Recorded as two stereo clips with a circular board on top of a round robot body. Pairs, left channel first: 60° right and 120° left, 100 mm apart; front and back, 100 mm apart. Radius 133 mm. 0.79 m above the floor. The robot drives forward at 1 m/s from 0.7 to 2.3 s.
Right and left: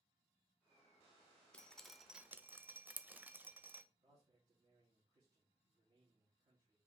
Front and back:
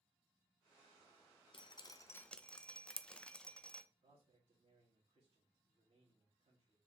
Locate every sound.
1.5 s dripping: 20° left, 1.1 m; by 3.8 s 70° left, 0.7 m
4.0 s a man speaking: 160° left, 1.8 m